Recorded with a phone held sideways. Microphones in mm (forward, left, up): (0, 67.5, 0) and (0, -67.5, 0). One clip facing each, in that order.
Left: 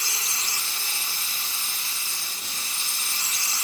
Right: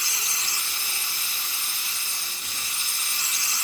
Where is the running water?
30° left (ahead or behind), 0.8 m.